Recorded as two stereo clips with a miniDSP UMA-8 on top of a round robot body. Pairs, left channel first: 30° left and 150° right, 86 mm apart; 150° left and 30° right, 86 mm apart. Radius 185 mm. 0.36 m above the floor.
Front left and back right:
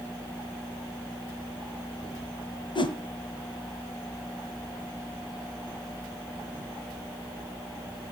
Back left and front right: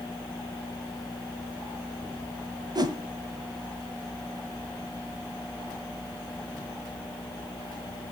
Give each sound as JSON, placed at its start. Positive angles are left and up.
{"t": 2.8, "sound": "a whoosh", "azimuth_deg": 5, "distance_m": 1.7}